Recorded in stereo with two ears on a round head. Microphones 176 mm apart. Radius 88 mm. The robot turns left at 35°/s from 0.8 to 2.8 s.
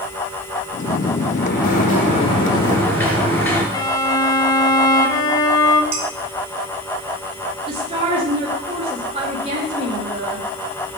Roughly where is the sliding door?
Ahead left.